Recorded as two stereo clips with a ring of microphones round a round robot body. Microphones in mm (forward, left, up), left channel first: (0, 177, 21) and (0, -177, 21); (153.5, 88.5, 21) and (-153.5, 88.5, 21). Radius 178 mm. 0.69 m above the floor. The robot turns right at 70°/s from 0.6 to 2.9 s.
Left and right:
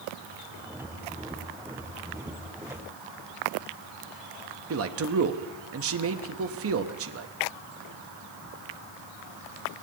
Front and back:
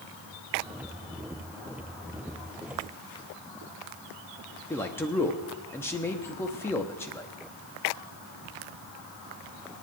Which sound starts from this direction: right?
A man speaking, at 4.7 s.